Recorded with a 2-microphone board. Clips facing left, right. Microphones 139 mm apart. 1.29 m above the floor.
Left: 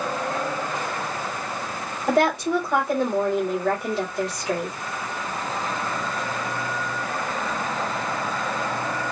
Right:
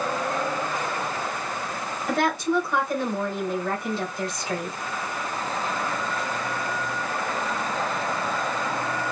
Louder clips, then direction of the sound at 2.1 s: Left 4 dB; 90° left.